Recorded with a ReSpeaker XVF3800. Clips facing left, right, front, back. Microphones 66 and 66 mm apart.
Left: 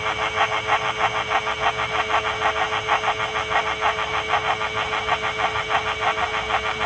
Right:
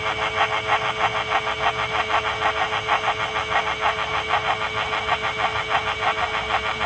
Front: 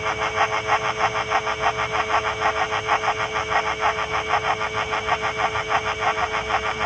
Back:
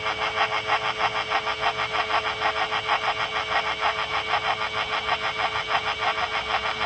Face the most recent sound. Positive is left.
No sound to turn to.